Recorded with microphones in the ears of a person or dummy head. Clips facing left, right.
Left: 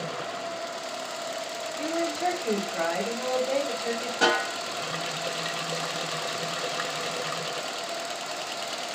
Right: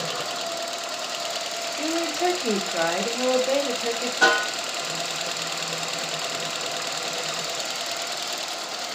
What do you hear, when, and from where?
1.8 s a woman speaking: 55° right (ahead or behind), 0.6 m
4.2 s a snare drum: 40° left (ahead or behind), 1.1 m